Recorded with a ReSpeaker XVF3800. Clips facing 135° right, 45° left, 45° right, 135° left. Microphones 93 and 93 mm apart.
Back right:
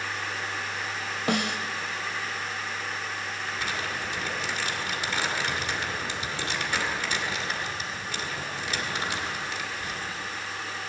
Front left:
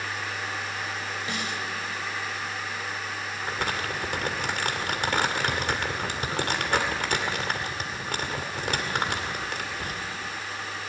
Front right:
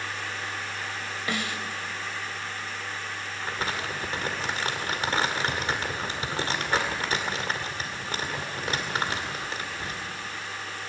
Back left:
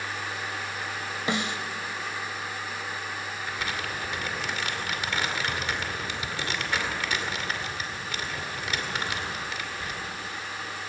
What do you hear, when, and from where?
1.3 s a snare drum: 160° right, 1.0 m
3.4 s crumpling: 10° left, 2.5 m